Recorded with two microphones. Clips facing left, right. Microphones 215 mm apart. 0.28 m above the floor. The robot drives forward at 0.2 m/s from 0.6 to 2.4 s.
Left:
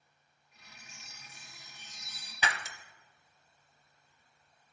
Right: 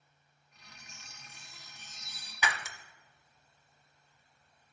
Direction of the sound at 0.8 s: 50° right (ahead or behind).